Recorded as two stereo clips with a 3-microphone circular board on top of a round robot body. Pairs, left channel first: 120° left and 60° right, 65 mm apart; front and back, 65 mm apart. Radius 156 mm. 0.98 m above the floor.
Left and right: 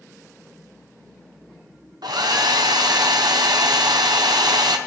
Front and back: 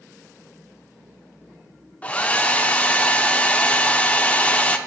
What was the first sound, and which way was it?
A hair dryer, 70° right.